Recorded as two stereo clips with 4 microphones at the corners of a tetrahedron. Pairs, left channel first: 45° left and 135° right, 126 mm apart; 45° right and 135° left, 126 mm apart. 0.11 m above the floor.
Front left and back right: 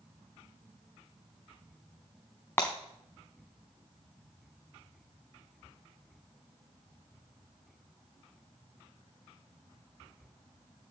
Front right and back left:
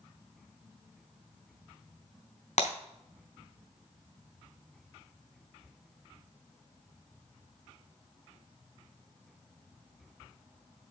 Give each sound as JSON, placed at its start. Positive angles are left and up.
{"t": 2.6, "sound": "breaking glass", "azimuth_deg": -25, "distance_m": 4.0}